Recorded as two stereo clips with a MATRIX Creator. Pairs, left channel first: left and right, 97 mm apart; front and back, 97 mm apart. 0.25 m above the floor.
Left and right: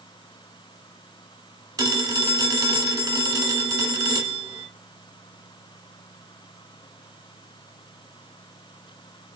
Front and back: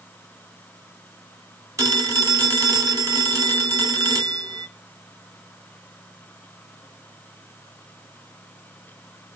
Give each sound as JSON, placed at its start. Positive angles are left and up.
{"t": 1.8, "sound": "a phone ringing", "azimuth_deg": -130, "distance_m": 0.9}